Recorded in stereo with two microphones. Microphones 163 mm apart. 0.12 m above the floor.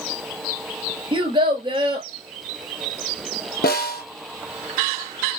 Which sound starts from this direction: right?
A child speaking, at 1.1 s.